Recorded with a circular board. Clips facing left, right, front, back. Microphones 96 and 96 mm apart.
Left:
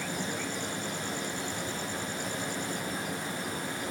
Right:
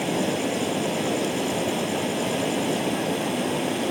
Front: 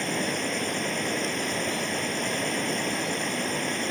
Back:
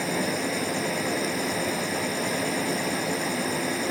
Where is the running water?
95° right, 1.1 m.